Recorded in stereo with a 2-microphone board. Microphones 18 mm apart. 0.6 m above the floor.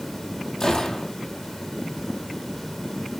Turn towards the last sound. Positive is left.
turn(degrees=20)  # may be behind; listen again after turning